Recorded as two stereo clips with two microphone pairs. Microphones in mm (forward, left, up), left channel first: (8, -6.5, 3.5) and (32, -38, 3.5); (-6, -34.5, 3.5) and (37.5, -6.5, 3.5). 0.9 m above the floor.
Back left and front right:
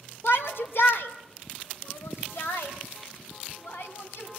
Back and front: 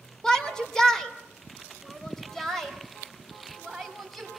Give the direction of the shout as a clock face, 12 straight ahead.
7 o'clock.